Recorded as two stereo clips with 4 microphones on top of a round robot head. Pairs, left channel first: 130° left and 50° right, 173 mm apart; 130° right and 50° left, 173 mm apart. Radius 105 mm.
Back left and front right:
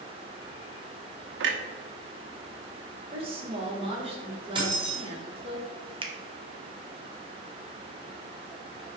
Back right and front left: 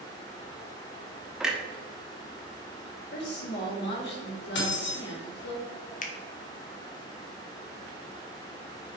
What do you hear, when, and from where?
1.4 s a clunk: 40° right, 1.0 m
3.1 s a woman speaking: 105° right, 2.5 m
4.5 s keys jangling: 110° right, 2.5 m
6.0 s a finger snap: 105° right, 1.1 m